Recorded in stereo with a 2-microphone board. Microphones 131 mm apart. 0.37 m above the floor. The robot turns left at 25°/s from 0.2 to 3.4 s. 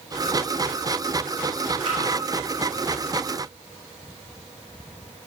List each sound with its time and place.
1.9 s a splash: 50° right (ahead or behind), 1.4 m